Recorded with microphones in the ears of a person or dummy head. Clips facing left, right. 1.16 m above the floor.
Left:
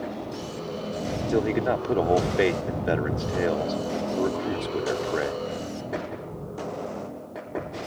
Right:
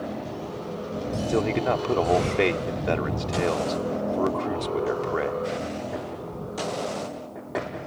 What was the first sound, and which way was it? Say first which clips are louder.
A man speaking: left 1 dB; 10° left (ahead or behind).